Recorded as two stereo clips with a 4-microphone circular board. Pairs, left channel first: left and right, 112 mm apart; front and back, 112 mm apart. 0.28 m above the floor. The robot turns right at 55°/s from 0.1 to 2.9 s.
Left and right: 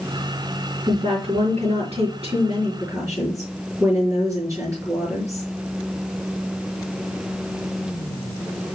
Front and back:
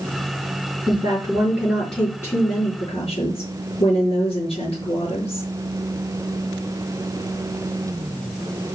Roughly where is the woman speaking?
Behind right.